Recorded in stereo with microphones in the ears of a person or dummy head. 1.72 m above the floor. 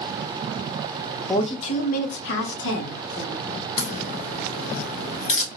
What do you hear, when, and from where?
1.3 s a woman speaking: 20° left (ahead or behind), 0.6 m; by 3.5 s 85° left, 1.2 m
3.8 s a crack: 40° left (ahead or behind), 1.4 m